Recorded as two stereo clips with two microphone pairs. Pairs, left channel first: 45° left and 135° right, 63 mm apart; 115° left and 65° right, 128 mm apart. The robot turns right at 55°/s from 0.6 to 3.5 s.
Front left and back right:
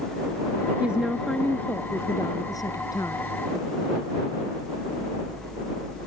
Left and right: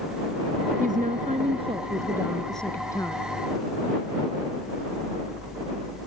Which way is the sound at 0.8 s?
70° right.